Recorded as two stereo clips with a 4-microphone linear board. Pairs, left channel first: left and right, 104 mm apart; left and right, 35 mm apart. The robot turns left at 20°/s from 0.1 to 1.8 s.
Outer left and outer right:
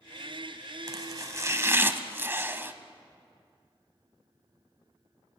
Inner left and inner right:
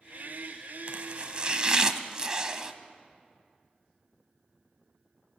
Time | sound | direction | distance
0.9 | chopping | 40° right (ahead or behind) | 1.2 m